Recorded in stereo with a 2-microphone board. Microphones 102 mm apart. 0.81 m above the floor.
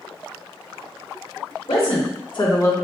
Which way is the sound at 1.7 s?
70° left (ahead or behind).